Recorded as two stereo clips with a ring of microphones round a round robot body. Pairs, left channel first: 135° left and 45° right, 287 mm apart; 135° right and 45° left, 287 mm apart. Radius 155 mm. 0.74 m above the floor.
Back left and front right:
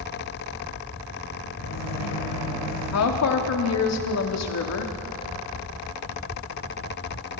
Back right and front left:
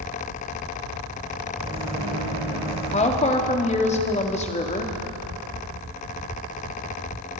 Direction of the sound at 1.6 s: 115° left.